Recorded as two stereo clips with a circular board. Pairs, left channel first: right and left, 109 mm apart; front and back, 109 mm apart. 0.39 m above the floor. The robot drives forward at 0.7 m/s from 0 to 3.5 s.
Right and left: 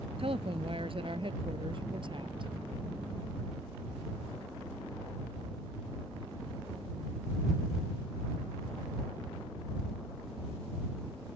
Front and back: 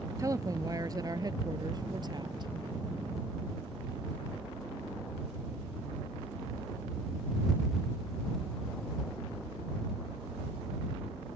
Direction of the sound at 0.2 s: 120° left.